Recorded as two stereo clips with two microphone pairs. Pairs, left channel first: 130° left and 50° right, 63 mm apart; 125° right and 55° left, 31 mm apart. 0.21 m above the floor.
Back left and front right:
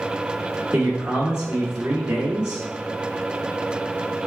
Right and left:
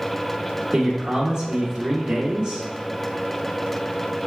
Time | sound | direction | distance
0.7 | a man speaking | 15° left | 1.8 m